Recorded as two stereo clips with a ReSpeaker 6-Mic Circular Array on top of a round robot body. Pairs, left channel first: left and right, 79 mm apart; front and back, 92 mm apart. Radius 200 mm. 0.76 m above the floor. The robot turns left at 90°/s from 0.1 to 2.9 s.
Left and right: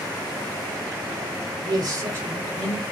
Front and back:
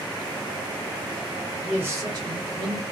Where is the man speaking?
100° right, 2 m; by 2.8 s 155° left, 2 m.